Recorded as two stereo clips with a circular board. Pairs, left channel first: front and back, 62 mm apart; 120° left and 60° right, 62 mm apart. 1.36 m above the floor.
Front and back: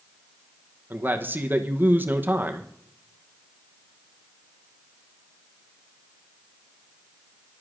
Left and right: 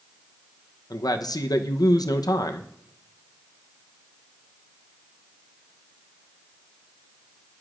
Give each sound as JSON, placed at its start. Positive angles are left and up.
{"t": 0.9, "sound": "a man speaking", "azimuth_deg": 120, "distance_m": 0.9}